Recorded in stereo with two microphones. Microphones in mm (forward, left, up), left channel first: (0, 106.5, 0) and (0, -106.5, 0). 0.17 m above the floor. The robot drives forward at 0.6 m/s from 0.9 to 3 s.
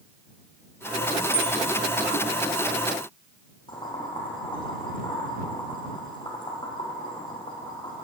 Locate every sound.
1.3 s a bicycle bell: 10° right (ahead or behind), 4.5 m
3.7 s boiling: 20° left (ahead or behind), 4 m